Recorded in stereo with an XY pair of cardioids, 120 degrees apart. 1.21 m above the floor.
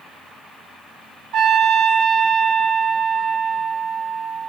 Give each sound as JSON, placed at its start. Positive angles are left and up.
{"t": 1.3, "sound": "a trumpet", "azimuth_deg": -65, "distance_m": 1.0}